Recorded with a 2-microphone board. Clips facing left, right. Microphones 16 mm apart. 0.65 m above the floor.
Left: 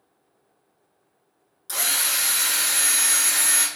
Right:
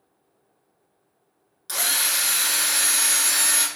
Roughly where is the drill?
Right.